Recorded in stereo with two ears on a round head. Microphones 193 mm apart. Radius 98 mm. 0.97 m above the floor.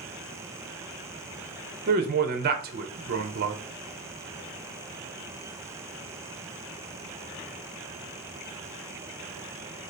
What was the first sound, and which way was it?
A man speaking, 40° right (ahead or behind).